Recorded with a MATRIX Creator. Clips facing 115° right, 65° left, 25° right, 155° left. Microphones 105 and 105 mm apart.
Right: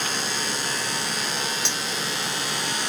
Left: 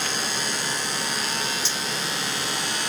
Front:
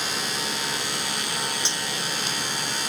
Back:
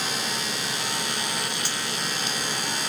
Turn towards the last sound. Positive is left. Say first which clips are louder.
# right 1 dB, even
turn(degrees=-90)